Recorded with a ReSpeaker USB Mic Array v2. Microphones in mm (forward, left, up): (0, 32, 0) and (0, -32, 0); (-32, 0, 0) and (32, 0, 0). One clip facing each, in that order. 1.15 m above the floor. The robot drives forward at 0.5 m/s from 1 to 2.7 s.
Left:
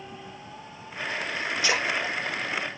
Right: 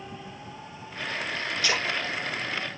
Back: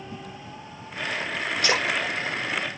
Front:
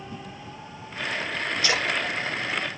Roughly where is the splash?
Behind.